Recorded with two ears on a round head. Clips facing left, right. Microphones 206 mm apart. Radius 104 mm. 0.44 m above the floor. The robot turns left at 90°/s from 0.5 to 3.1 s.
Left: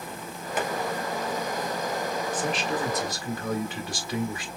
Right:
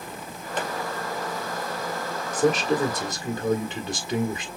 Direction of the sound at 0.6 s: 5° left (ahead or behind).